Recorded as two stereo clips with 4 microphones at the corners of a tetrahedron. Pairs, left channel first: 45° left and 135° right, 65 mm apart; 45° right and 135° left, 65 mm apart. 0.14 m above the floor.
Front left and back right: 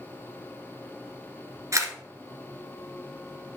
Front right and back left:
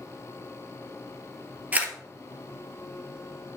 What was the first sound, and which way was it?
A camera shutter, 165° right.